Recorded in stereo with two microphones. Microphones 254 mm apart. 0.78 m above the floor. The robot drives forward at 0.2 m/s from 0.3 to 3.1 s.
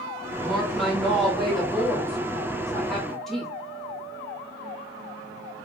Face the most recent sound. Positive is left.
turn(degrees=0)  # may be behind; listen again after turning